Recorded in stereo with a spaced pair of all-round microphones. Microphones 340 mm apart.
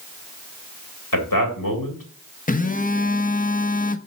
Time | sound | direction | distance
1.1 | a man speaking | 75° left (ahead or behind) | 2.5 m
2.5 | a phone buzzing | 25° left (ahead or behind) | 0.6 m